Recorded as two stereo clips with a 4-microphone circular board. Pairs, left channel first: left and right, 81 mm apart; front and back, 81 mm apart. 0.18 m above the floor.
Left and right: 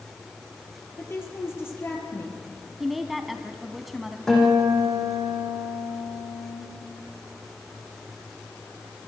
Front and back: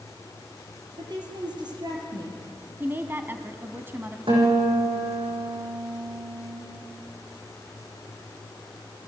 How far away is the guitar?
About 8.5 m.